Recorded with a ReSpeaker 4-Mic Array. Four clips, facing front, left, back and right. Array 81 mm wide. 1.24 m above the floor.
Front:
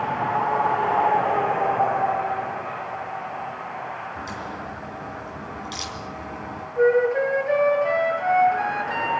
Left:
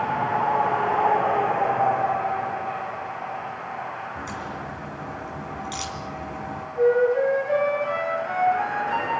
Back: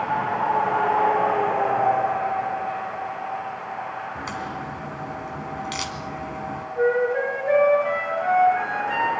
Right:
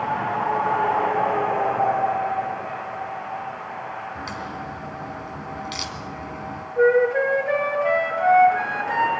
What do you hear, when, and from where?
4.2 s a crack: 160° right, 3 m
6.8 s a flute: 95° right, 7 m